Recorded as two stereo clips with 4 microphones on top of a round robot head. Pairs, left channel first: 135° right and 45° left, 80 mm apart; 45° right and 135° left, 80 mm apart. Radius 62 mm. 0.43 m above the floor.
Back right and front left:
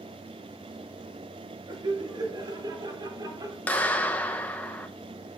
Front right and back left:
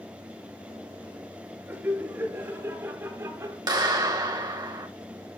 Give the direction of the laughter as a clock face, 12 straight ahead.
10 o'clock.